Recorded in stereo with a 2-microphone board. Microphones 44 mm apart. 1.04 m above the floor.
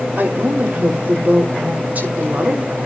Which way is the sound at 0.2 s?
45° right (ahead or behind).